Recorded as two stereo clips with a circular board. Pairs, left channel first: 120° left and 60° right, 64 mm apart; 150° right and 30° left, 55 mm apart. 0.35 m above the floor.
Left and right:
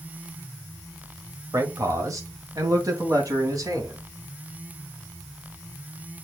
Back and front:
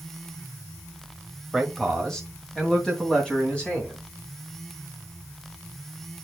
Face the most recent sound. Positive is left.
turn(degrees=-80)